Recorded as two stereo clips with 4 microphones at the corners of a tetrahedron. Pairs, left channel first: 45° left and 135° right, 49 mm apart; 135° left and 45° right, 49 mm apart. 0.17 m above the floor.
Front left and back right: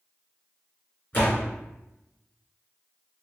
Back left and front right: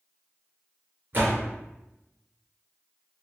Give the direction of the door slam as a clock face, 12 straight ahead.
12 o'clock.